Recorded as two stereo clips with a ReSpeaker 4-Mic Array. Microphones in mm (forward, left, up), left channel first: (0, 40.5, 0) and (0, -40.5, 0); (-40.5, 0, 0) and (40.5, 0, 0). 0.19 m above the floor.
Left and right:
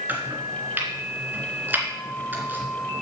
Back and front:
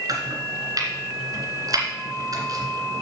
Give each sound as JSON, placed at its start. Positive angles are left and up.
{"t": 0.1, "sound": "chopping", "azimuth_deg": -25, "distance_m": 2.5}